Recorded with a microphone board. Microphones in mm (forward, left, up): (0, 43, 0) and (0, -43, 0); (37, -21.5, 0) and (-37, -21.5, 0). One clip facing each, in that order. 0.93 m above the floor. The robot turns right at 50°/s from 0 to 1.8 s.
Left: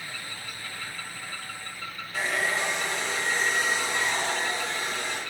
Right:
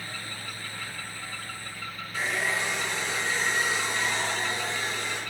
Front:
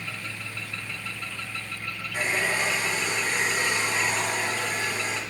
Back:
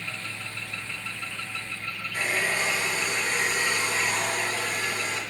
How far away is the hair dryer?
About 1.9 m.